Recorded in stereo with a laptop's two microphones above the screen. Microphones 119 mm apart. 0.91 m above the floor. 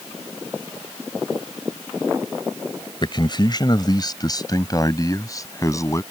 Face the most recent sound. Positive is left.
turn(degrees=25)  # may be behind; listen again after turning